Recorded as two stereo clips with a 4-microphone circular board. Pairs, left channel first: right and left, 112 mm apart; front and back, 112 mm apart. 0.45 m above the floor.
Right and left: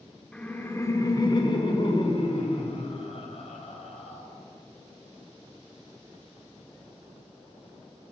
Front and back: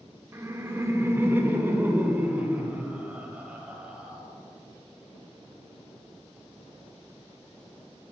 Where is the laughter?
160° right, 0.8 m; by 4.3 s 100° right, 2.5 m.